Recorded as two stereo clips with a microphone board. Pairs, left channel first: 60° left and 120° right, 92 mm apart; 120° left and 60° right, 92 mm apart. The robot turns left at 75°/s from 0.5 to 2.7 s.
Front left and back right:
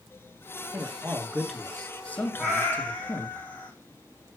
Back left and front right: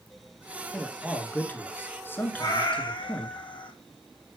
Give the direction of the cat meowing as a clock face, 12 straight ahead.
7 o'clock.